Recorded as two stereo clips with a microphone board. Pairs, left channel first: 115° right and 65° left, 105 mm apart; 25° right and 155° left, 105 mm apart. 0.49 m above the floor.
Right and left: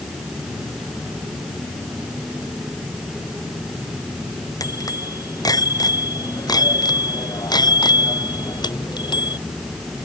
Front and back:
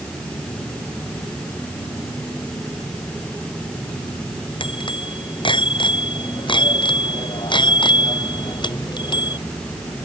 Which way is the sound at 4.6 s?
60° right.